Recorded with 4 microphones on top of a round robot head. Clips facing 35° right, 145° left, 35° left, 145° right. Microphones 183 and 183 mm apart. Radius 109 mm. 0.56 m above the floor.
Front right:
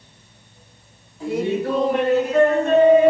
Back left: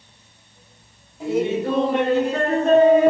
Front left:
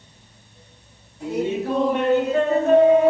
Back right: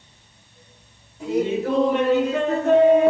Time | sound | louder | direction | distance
1.2 | laughter | back left 1 dB, back right 2 dB | 145° right | 1.8 m